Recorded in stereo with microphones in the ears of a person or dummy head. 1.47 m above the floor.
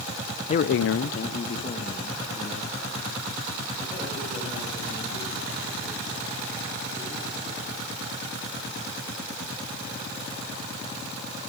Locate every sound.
0.5 s a man speaking: 40° left (ahead or behind), 0.6 m; by 8.0 s 15° left (ahead or behind), 11.5 m